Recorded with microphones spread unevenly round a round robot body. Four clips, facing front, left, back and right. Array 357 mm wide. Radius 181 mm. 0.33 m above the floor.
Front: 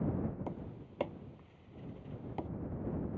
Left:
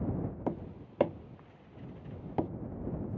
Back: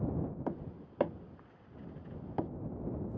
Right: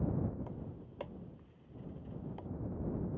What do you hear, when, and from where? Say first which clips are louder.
0.5 s tapping: left 10 dB, back 4 dB; 115° left